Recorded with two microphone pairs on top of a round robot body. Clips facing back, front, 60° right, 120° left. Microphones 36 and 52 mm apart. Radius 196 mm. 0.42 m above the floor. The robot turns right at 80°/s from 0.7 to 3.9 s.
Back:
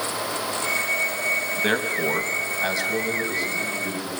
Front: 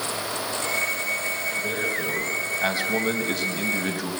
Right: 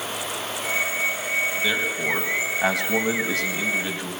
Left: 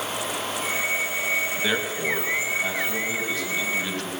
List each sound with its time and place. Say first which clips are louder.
1.6 s a man speaking: back 3 dB, right 2 dB; 170° right, 4 m; by 4.1 s 15° left, 4 m